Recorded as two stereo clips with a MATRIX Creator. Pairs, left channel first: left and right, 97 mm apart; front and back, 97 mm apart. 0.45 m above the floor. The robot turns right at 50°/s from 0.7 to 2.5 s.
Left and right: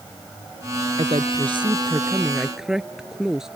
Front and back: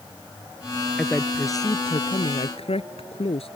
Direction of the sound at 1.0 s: 80° right.